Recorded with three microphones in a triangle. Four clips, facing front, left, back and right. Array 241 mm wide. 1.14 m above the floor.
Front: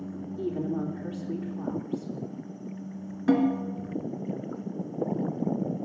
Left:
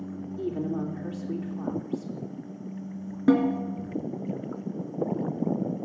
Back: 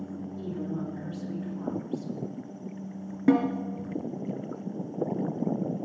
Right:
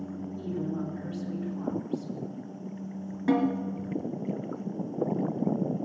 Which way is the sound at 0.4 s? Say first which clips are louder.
Left 4 dB, front 5 dB; 60° left.